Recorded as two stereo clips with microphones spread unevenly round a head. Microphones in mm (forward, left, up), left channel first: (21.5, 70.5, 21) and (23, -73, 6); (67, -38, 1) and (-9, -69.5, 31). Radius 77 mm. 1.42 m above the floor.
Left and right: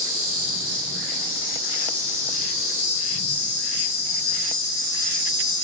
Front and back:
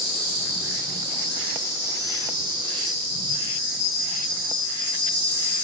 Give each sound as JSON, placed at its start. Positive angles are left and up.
{"t": 0.0, "sound": "an insect", "azimuth_deg": 175, "distance_m": 1.7}